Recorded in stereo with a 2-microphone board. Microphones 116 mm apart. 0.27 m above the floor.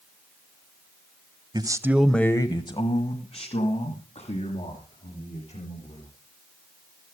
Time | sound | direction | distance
1.5 | a man speaking | 35° right (ahead or behind) | 1.1 m